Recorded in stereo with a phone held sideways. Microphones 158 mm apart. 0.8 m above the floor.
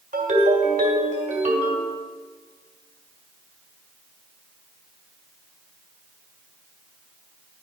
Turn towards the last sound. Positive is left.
turn(degrees=-50)  # may be behind; listen again after turning